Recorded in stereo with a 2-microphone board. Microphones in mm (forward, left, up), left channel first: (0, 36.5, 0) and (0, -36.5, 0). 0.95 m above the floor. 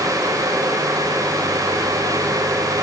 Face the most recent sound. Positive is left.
No sound to turn to.